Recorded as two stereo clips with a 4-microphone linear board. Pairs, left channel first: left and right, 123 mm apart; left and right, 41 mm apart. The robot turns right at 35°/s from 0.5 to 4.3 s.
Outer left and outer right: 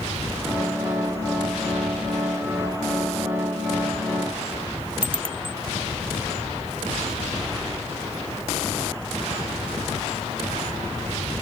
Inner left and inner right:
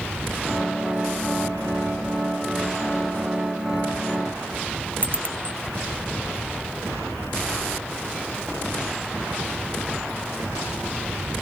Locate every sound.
5.0 s a bicycle bell: 45° right (ahead or behind)